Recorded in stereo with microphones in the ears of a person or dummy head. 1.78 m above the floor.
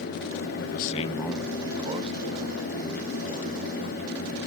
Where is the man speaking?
65° left (ahead or behind), 0.9 m; by 4.0 s 50° right (ahead or behind), 4 m.